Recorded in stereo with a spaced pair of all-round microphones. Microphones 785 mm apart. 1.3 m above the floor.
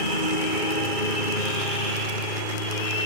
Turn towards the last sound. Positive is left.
turn(degrees=90)